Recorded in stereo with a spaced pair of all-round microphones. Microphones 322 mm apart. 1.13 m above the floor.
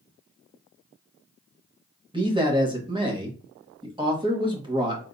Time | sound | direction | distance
2.1 | a man speaking | 15° right (ahead or behind) | 1.3 m